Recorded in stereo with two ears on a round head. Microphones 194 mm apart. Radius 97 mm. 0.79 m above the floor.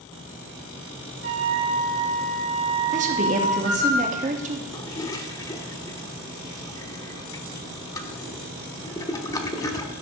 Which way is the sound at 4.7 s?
15° left (ahead or behind).